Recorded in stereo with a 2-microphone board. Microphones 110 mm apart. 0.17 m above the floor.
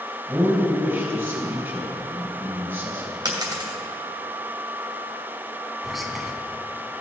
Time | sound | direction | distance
0.3 | a man speaking | 20° right (ahead or behind) | 3.5 m
3.2 | a dropped coin | 35° right (ahead or behind) | 2 m
5.8 | whispering | centre (ahead or behind) | 1.2 m